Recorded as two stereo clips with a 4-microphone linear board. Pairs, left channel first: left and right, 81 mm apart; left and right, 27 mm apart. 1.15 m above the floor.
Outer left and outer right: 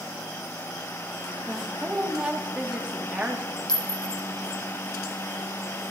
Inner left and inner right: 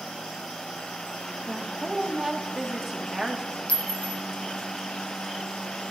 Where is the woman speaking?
15° right (ahead or behind), 1.2 m.